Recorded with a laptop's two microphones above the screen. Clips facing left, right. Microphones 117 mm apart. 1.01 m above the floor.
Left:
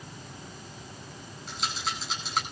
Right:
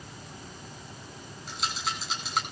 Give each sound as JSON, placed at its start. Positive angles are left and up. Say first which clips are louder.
{"t": 1.5, "sound": "a rattle", "louder": "even", "side_deg": 0, "distance_m": 10.0}